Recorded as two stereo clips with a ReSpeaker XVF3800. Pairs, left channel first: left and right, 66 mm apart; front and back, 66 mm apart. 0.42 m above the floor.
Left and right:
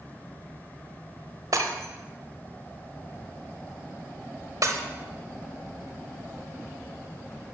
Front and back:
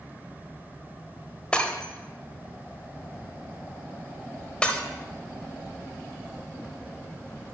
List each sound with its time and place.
1.5 s breaking glass: 75° right, 1.0 m